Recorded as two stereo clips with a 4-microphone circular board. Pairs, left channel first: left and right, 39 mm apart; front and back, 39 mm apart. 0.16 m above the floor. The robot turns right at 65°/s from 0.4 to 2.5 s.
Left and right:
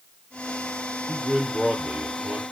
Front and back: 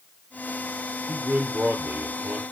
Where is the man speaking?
170° left, 4.5 m; by 2.4 s 105° right, 4.5 m.